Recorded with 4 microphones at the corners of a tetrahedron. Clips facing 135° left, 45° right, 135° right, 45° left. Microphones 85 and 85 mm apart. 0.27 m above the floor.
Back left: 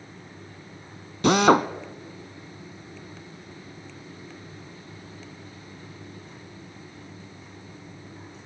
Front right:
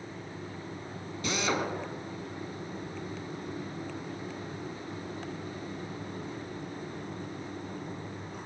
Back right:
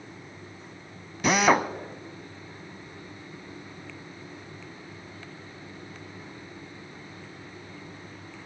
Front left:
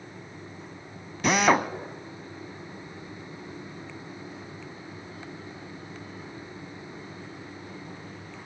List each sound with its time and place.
1.2 s a drill: 135° left, 1.0 m